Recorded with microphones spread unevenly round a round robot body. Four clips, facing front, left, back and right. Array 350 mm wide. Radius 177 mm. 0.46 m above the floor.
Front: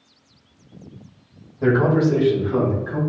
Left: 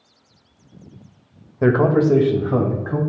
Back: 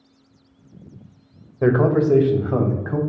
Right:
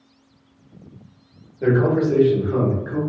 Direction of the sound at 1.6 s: 105° left.